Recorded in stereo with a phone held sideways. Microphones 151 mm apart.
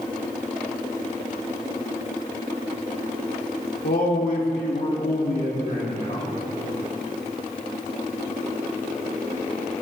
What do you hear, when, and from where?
3.8 s a man speaking: 80° left, 3.5 m